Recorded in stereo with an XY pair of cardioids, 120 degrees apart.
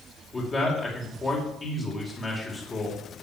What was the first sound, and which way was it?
A man speaking, 25° left.